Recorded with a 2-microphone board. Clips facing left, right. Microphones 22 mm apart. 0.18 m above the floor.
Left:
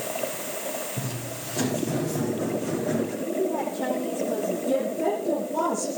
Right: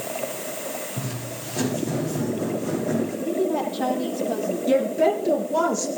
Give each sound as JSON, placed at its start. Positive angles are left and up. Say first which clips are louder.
{"t": 1.0, "sound": "footsteps", "louder": "right 1 dB", "side_deg": -10, "distance_m": 10.0}
{"t": 3.2, "sound": "a woman speaking", "louder": "right 3 dB", "side_deg": -60, "distance_m": 7.0}
{"t": 4.7, "sound": "a woman speaking", "louder": "right 7 dB", "side_deg": -50, "distance_m": 3.5}